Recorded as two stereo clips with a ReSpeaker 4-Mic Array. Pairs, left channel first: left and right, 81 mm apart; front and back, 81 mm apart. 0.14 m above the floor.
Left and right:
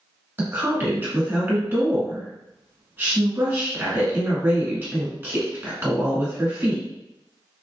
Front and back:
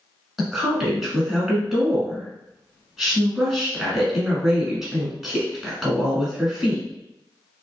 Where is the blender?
No blender in this recording.